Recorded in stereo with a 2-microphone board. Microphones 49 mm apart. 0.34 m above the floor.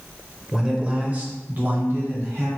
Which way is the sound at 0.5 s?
10° right (ahead or behind).